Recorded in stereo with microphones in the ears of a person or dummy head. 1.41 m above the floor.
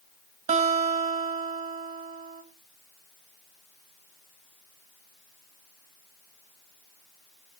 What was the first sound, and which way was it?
A guitar, 35° right (ahead or behind).